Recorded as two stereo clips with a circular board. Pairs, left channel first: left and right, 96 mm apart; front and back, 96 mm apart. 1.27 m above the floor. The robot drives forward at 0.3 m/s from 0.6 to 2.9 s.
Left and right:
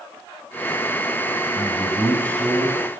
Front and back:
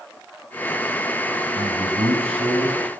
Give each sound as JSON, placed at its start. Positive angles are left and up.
{"t": 1.6, "sound": "a man speaking", "azimuth_deg": 165, "distance_m": 7.0}